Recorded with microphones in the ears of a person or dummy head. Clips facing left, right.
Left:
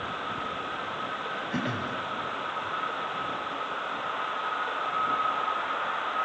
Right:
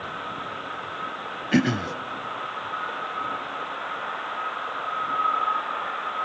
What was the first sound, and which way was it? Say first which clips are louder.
Throat clearing: right 11 dB; 90° right.